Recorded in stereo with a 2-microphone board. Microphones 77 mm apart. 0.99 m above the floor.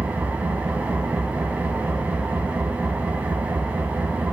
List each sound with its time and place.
0.0 s an engine running: 20° right (ahead or behind), 2 m